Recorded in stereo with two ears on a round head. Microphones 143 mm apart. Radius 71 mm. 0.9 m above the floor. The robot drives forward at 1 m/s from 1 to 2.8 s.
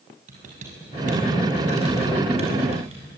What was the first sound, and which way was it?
Typing on a keyboard, 55° right (ahead or behind).